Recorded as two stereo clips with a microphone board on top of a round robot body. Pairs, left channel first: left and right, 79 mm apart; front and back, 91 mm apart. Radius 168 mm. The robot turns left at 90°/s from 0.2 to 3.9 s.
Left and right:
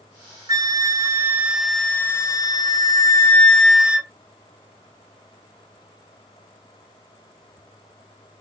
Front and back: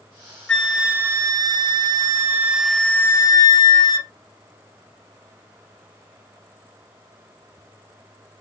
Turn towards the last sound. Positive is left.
turn(degrees=-20)